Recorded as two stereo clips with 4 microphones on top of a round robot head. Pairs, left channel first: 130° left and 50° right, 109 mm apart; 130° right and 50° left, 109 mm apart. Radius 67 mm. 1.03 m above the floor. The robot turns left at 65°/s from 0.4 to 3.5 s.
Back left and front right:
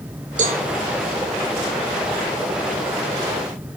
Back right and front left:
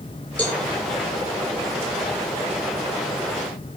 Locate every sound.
0.4 s a cowbell: 55° right, 3.5 m; by 0.6 s 70° right, 3.5 m